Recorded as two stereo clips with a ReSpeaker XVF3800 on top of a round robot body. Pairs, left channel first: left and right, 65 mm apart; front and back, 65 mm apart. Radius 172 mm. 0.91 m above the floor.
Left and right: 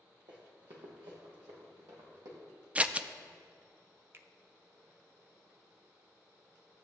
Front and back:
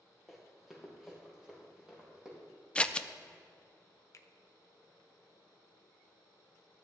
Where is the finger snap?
40° right, 0.7 m.